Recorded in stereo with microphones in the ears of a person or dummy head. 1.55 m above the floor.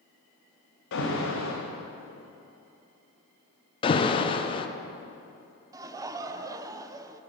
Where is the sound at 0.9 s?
65° left (ahead or behind), 2.0 m.